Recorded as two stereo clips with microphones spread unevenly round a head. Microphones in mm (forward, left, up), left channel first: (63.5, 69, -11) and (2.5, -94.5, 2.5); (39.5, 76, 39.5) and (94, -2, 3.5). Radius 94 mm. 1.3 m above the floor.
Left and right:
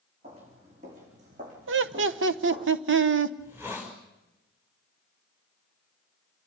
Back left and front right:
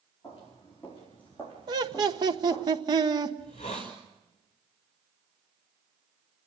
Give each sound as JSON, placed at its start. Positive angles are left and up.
{"t": 0.2, "sound": "footsteps", "azimuth_deg": -165, "distance_m": 4.5}
{"t": 1.7, "sound": "laughter", "azimuth_deg": -100, "distance_m": 1.1}
{"t": 3.4, "sound": "a hiss", "azimuth_deg": 175, "distance_m": 5.0}